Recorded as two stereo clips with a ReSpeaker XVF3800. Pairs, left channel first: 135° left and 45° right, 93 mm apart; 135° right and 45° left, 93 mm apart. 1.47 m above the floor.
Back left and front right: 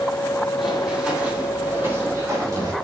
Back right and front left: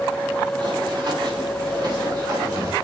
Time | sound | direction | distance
0.6 | running footsteps | 45° left | 2.5 m